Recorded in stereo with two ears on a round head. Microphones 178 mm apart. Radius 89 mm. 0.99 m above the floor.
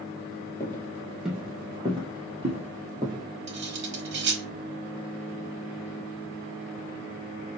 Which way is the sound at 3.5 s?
60° right (ahead or behind).